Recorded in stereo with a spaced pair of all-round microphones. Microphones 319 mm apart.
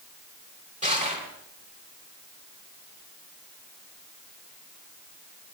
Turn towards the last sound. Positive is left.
turn(degrees=-25)  # may be behind; listen again after turning